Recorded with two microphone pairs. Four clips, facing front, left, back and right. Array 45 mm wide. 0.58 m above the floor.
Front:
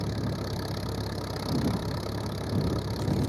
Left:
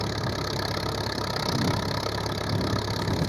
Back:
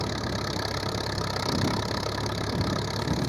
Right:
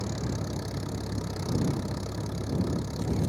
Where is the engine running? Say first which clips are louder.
Left 4 dB, back 3 dB; 130° left.